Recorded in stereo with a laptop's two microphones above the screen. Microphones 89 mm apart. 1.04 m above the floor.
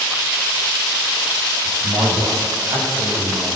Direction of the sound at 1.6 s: 35° right (ahead or behind).